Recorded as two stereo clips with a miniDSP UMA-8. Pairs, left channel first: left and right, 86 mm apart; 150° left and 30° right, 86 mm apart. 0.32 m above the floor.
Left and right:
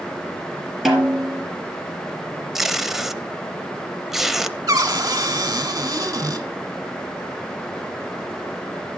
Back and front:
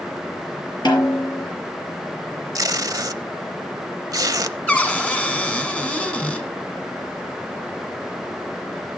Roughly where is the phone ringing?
No phone ringing in this recording.